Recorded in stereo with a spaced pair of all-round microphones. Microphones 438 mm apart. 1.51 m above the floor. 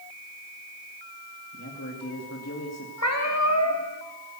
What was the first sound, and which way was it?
A man speaking, 35° left (ahead or behind).